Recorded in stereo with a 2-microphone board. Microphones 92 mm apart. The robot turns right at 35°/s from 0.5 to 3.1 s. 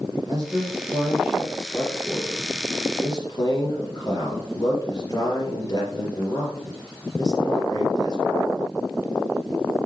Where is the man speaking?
40° right, 4 m; by 8.3 s 50° left, 4 m.